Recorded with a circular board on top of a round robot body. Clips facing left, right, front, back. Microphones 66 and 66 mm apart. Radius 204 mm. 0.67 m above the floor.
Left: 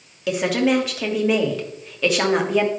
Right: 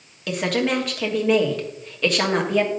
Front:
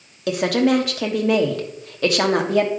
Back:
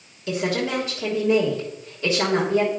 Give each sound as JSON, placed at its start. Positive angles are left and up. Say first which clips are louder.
{"t": 0.3, "sound": "a woman speaking", "louder": "left 3 dB, front 6 dB", "azimuth_deg": 5, "distance_m": 1.5}